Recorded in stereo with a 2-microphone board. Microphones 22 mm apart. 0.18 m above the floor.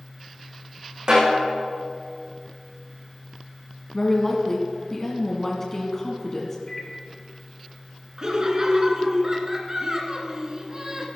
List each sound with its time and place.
1.1 s a snare drum: 45° right (ahead or behind), 6 m
3.9 s a woman speaking: 25° left (ahead or behind), 1.7 m
6.7 s a microwave: 20° left (ahead or behind), 2.0 m
8.2 s laughter: 30° right (ahead or behind), 2.5 m